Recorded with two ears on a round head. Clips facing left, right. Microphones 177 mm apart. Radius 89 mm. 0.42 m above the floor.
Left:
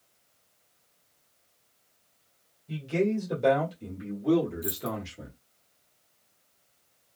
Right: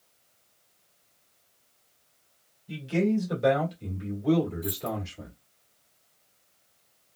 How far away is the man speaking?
About 1.6 m.